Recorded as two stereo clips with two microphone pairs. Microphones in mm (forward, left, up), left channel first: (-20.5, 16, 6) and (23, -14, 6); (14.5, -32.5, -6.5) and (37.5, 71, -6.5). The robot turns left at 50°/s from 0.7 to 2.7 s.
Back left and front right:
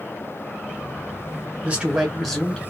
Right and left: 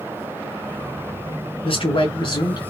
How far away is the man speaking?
About 1.9 m.